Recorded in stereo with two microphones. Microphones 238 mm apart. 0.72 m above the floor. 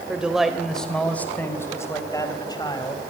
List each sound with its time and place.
0.1 s a man speaking: 5° right (ahead or behind), 3 m; by 3.0 s 20° left (ahead or behind), 4 m